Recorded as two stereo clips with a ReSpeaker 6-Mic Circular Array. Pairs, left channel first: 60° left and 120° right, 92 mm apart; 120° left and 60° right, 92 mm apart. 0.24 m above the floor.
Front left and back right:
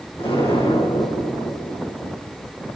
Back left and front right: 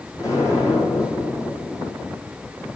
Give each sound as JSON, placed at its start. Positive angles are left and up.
{"t": 0.2, "sound": "an explosion", "azimuth_deg": 65, "distance_m": 5.5}